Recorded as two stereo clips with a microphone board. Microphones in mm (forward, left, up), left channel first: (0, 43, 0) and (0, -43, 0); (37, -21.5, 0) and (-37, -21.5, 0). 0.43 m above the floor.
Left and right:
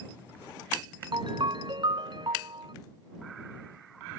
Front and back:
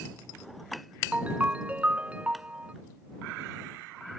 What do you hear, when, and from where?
1.1 s a ringtone: 110° right